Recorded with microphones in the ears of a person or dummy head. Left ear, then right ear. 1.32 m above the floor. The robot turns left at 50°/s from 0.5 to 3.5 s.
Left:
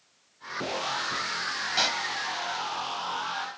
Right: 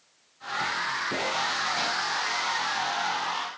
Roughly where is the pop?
Left.